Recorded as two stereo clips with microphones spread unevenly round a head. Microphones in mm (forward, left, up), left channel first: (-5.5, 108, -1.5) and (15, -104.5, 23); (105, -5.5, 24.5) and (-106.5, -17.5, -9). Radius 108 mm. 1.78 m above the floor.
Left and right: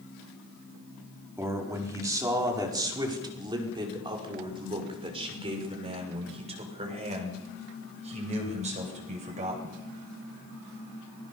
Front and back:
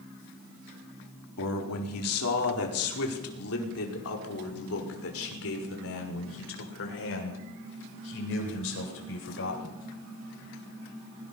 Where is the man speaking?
5° right, 4.5 m; by 9.8 s 25° right, 8.5 m.